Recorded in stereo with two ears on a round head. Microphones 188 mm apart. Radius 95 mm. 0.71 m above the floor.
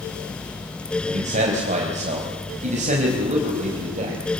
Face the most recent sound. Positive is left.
turn(degrees=-35)  # may be behind; listen again after turning